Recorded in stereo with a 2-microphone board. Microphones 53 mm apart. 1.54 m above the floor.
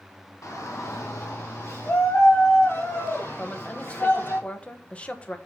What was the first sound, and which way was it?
A shout, 80° left.